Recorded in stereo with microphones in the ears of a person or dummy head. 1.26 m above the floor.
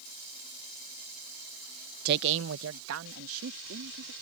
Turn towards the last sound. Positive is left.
turn(degrees=-70)  # may be behind; listen again after turning